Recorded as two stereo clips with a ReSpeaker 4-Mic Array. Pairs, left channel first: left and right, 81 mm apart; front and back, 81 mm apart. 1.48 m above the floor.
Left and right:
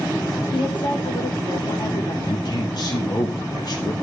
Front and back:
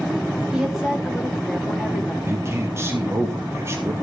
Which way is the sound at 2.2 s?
120° left.